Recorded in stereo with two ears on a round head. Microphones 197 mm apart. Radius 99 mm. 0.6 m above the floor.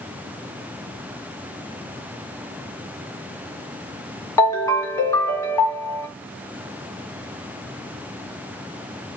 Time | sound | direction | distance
4.4 | a ringtone | 15° left (ahead or behind) | 1.2 m